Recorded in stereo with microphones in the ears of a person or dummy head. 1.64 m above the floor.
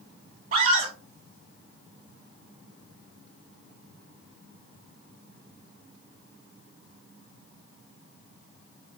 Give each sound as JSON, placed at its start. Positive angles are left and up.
{"t": 0.5, "sound": "a scream", "side_deg": -40, "distance_m": 1.5}